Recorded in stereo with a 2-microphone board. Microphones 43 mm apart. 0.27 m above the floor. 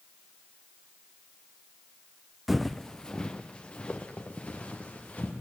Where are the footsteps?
5° right (ahead or behind), 0.7 m; by 5.3 s 35° left (ahead or behind), 3.5 m.